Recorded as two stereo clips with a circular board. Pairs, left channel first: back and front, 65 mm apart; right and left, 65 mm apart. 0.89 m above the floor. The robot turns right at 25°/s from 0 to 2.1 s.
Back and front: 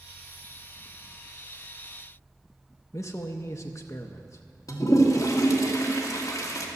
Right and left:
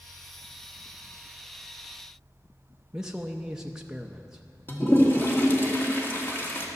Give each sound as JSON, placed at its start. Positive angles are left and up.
{"t": 2.9, "sound": "a man speaking", "azimuth_deg": 165, "distance_m": 0.6}
{"t": 4.7, "sound": "a toilet flushing", "azimuth_deg": -145, "distance_m": 1.5}